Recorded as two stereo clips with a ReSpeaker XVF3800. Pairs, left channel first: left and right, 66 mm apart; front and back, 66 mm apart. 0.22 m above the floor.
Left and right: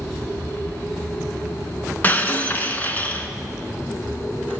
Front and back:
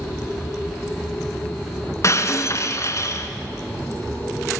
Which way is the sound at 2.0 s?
30° left.